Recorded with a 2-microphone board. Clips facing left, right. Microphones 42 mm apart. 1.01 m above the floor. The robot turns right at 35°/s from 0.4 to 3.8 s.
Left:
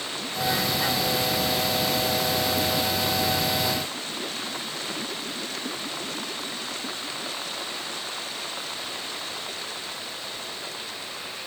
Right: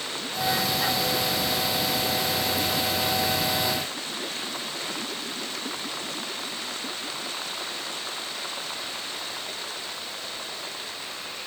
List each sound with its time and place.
Only background noise.